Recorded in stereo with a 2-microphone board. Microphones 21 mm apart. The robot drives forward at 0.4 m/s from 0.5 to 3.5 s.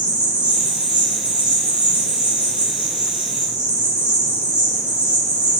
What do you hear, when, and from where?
0.0 s an insect: 85° right, 4 m; by 5.6 s 70° right (ahead or behind), 4.5 m